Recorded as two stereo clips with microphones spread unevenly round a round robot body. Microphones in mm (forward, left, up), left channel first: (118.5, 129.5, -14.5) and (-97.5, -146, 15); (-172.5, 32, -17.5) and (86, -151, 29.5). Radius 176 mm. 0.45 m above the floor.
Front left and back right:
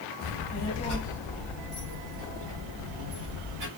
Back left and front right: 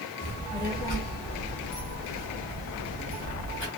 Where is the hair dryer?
I don't hear a hair dryer.